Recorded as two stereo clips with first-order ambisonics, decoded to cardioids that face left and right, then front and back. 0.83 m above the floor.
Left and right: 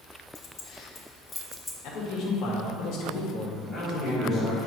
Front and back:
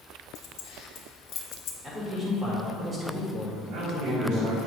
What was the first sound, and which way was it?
Keys jangling, 40° left.